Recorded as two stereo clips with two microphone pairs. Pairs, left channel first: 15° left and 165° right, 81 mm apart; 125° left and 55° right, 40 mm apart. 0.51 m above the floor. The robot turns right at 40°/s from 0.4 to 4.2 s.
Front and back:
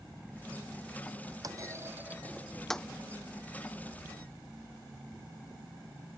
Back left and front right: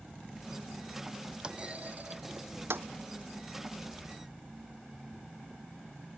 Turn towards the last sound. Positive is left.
turn(degrees=-10)